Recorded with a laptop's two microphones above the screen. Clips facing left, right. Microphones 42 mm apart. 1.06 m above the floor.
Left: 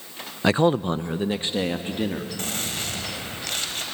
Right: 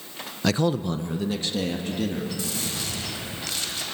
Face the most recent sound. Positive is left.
turn(degrees=50)  # may be behind; listen again after turning